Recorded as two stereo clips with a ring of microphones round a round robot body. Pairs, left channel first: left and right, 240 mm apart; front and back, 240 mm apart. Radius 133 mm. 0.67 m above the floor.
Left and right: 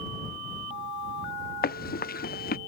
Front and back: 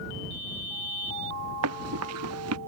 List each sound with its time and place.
1.6 s running footsteps: 140° left